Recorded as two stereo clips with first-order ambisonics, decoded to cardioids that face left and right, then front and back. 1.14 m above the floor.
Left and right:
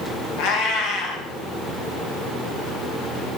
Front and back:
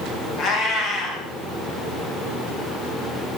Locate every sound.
0.4 s a cat meowing: 65° left, 4 m